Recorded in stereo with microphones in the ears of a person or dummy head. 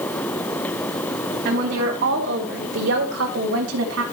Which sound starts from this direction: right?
A woman speaking, at 1.4 s.